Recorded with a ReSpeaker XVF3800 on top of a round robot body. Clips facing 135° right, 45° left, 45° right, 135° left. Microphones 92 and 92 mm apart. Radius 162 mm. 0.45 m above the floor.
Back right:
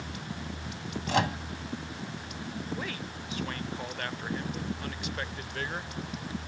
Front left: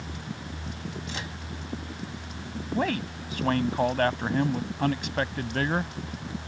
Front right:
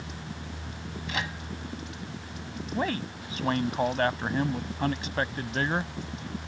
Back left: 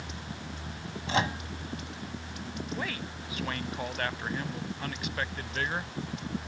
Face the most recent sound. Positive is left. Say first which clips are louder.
# front left 9 dB, front right 10 dB
turn(degrees=10)